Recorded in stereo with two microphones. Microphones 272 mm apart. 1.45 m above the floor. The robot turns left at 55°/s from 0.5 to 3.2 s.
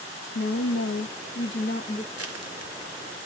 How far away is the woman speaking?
About 0.5 m.